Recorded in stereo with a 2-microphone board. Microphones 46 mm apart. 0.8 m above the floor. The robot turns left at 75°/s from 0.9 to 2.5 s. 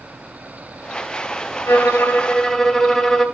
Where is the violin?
75° left, 2.5 m; by 3.2 s 10° left, 2.5 m.